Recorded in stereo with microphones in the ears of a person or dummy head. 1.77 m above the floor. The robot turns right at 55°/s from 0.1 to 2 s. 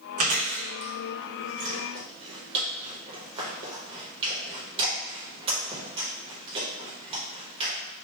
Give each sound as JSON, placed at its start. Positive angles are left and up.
{"t": 0.2, "sound": "chewing", "side_deg": -40, "distance_m": 0.8}